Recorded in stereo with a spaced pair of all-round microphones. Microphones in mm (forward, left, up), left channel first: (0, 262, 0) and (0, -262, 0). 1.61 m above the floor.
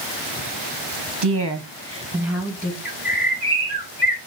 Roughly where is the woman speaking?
Right.